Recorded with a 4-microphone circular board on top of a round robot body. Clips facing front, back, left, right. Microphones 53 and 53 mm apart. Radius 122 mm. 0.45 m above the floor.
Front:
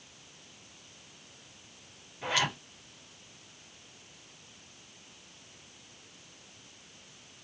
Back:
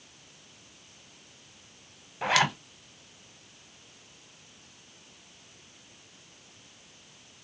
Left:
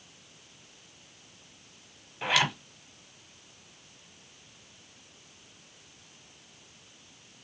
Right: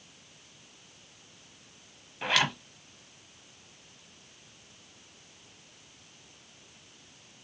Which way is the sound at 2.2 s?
Straight behind.